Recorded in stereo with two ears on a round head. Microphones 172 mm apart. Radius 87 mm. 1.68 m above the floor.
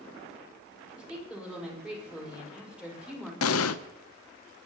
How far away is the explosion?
About 0.7 m.